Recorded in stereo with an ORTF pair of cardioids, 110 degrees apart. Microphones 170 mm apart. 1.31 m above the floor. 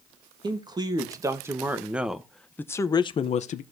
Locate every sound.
0.4 s a man speaking: 25° right, 1.9 m; by 3.6 s 55° left, 0.8 m